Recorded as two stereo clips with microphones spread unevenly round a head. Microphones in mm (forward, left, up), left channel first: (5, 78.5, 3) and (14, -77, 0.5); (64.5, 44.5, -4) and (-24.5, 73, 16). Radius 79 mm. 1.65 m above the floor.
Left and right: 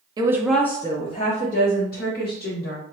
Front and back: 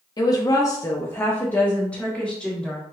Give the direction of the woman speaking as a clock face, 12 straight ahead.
2 o'clock.